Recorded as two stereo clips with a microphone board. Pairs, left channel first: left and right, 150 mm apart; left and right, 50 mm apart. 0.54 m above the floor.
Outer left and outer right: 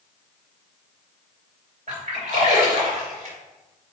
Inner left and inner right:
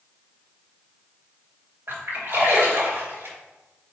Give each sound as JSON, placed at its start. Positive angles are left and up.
{"t": 1.9, "sound": "a splash", "side_deg": -55, "distance_m": 3.0}